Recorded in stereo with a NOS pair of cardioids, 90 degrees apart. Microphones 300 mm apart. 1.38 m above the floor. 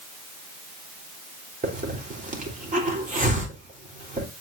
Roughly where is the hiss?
Ahead right.